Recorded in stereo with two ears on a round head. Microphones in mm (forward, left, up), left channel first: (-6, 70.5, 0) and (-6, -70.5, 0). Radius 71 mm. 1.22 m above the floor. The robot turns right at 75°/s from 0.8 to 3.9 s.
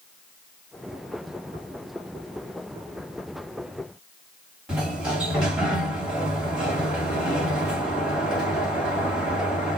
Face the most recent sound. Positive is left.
turn(degrees=-5)  # may be behind; listen again after turning